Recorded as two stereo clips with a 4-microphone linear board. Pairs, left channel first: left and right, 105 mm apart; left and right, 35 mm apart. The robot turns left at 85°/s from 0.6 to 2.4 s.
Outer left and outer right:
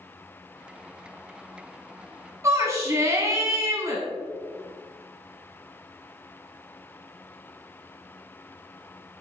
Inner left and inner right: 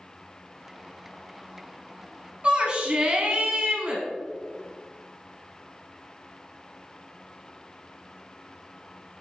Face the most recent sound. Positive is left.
turn(degrees=-30)  # may be behind; listen again after turning